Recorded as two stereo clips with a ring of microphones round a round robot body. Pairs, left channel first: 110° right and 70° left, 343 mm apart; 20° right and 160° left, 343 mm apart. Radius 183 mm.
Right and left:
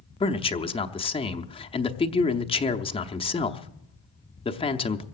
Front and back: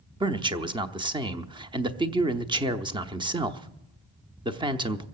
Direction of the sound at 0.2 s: 155° right.